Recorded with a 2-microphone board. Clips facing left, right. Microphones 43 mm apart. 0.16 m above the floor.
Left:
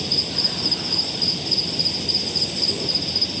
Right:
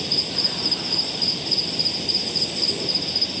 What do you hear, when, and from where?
0.0 s an insect: 5° right (ahead or behind)